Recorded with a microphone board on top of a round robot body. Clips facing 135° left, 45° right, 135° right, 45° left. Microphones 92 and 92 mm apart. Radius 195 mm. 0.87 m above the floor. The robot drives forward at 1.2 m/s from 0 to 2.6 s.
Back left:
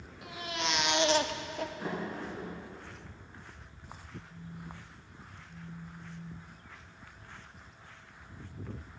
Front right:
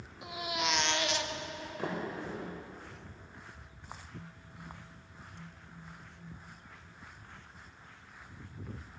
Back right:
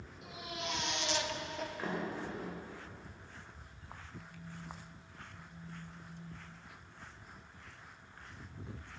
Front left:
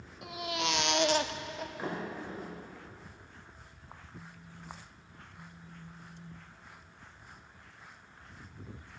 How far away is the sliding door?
About 4 m.